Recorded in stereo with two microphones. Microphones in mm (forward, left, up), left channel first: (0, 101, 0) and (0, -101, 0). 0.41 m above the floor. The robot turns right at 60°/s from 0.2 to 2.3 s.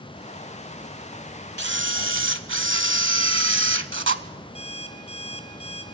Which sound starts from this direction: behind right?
A camera shutter, at 1.6 s.